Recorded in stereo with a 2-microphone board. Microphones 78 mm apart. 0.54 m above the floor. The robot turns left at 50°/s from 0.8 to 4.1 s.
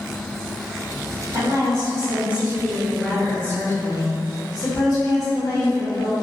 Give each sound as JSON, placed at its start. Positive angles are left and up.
{"t": 1.3, "sound": "a woman speaking", "azimuth_deg": -110, "distance_m": 1.3}